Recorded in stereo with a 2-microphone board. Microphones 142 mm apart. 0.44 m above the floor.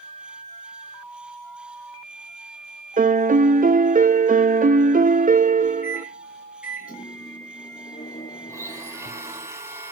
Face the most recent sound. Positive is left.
turn(degrees=-20)  # may be behind; listen again after turning